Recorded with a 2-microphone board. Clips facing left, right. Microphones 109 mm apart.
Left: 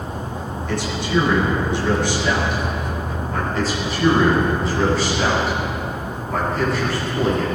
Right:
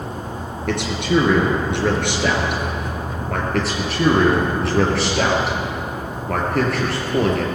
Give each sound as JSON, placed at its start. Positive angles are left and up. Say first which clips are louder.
{"t": 0.7, "sound": "a man speaking", "louder": "right 3 dB", "side_deg": -65, "distance_m": 3.5}
{"t": 3.5, "sound": "a man speaking", "louder": "right 2 dB", "side_deg": -70, "distance_m": 4.5}